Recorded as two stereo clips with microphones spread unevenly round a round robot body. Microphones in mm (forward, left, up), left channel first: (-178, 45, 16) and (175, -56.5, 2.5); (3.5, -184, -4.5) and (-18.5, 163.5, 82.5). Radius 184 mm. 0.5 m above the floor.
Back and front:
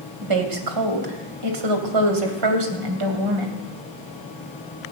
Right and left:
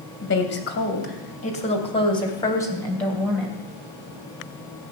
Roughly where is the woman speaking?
Ahead right.